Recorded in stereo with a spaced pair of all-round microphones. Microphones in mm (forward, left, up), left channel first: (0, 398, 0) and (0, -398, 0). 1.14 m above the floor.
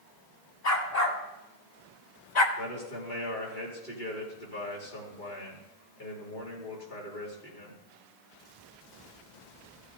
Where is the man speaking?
85° left, 3 m.